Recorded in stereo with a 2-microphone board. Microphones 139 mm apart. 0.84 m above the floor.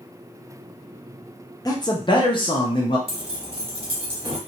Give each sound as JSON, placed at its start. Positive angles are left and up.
{"t": 1.6, "sound": "a man speaking", "side_deg": 25, "distance_m": 0.7}
{"t": 3.1, "sound": "keys jangling", "side_deg": -40, "distance_m": 1.0}